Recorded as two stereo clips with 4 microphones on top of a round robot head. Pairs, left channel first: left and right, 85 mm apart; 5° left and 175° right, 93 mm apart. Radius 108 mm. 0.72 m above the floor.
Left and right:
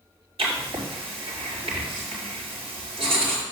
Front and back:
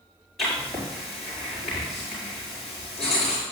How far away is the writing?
About 5 m.